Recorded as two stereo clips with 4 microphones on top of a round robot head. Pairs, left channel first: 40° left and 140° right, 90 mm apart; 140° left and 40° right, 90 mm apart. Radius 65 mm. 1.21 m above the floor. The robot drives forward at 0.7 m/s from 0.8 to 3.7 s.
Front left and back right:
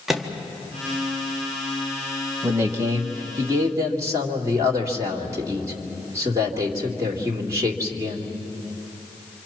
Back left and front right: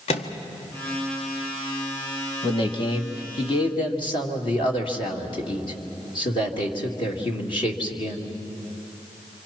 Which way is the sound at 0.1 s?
135° left.